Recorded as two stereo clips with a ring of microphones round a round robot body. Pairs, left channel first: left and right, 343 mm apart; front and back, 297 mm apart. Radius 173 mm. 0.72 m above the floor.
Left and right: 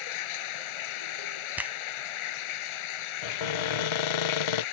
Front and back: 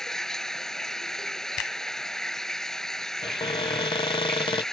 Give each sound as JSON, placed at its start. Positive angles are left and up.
{"t": 0.0, "sound": "running water", "azimuth_deg": 90}
{"t": 1.6, "sound": "a finger snap", "azimuth_deg": -5}
{"t": 3.2, "sound": "a cupboard door", "azimuth_deg": 75}